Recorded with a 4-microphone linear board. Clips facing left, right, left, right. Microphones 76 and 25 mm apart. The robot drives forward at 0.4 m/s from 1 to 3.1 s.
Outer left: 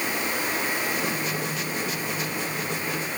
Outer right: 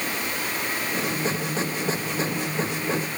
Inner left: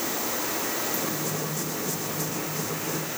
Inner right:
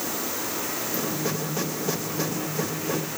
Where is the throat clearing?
I don't hear throat clearing.